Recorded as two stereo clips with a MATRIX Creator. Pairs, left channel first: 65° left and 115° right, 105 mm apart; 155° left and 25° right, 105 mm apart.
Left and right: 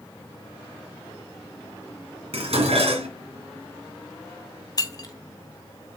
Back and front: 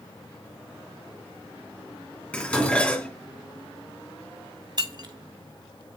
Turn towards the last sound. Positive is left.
turn(degrees=20)